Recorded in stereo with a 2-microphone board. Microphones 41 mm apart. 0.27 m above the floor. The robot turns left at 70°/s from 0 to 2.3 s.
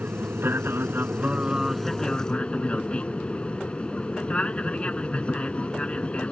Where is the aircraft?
50° right; by 6.3 s 145° left.